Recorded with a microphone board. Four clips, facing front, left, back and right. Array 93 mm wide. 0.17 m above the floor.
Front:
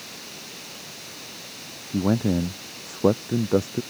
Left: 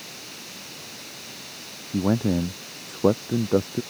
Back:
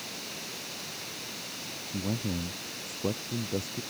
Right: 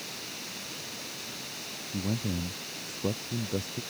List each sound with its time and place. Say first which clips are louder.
1.9 s a man speaking: left 11 dB, front 11 dB; 50° left